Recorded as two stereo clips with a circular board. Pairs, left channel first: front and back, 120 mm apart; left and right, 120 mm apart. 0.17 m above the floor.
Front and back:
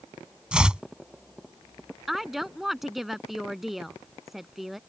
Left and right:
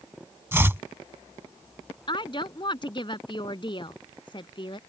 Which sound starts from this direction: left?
A woman speaking, at 2.1 s.